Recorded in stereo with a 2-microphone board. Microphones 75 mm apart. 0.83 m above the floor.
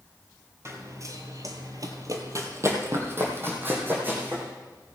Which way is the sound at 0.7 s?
40° right (ahead or behind).